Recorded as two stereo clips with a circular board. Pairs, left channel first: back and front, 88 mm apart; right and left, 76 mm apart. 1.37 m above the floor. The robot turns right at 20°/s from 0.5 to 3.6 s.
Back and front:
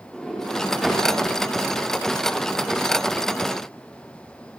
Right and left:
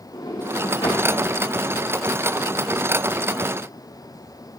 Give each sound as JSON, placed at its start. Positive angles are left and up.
{"t": 0.1, "sound": "a sliding door", "azimuth_deg": -95, "distance_m": 4.0}